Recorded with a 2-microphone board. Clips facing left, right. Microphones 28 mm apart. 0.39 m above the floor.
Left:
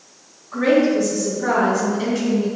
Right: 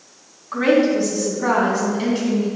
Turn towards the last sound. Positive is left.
turn(degrees=-10)  # may be behind; listen again after turning